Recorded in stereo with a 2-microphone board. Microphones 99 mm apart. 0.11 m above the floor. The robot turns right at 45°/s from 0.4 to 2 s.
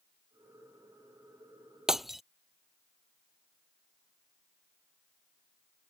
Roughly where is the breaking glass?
Centre.